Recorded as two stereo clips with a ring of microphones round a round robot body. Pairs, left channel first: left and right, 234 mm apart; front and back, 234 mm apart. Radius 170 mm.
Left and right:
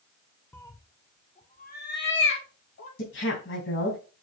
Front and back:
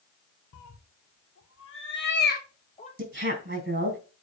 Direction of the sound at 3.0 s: 130° left.